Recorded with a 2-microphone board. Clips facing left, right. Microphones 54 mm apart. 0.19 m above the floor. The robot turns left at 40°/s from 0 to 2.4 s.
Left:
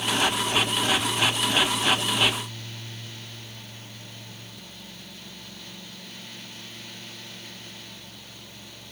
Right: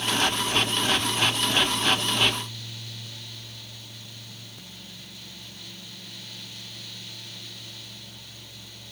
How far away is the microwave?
I don't hear a microwave.